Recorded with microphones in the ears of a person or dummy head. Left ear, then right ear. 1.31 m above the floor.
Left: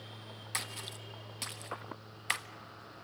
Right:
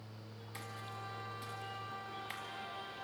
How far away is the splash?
About 1.2 m.